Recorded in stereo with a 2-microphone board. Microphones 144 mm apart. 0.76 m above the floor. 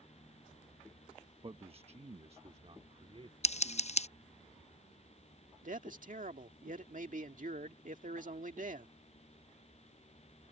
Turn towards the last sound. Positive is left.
turn(degrees=-65)  # may be behind; listen again after turning